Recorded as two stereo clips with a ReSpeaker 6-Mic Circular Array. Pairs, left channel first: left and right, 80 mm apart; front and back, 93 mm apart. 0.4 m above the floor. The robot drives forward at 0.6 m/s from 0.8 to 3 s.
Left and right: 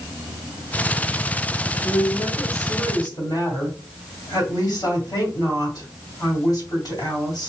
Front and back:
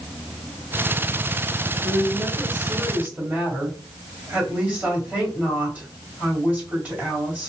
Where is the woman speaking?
90° left, 2 m; by 7.5 s 110° left, 2 m.